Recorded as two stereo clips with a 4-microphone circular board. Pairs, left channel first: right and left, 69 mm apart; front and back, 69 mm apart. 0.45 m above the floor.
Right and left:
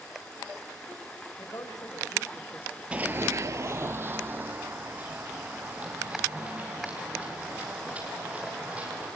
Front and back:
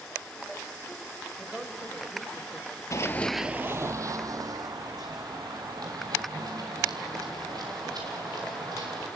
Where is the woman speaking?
95° right, 2.5 m; by 2.8 s 140° right, 1.3 m.